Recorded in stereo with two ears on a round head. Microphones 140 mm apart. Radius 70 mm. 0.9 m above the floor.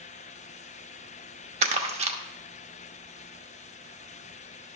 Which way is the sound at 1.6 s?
40° right (ahead or behind).